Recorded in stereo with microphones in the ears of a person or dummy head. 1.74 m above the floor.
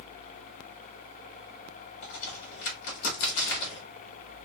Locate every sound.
2.0 s a crack: 55° left (ahead or behind), 2.5 m